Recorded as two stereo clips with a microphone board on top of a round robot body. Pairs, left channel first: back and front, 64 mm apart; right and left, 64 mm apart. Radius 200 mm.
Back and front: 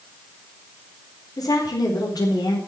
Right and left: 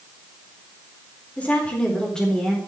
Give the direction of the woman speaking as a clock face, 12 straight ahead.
5 o'clock.